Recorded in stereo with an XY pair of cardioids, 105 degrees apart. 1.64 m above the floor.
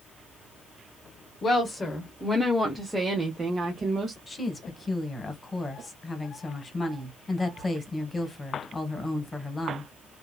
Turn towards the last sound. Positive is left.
turn(degrees=25)